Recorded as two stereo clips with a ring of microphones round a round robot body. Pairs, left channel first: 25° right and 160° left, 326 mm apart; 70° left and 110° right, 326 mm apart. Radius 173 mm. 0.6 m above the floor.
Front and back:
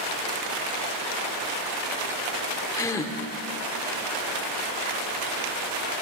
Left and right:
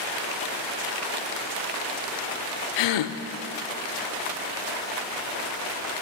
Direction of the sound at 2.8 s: 60° left.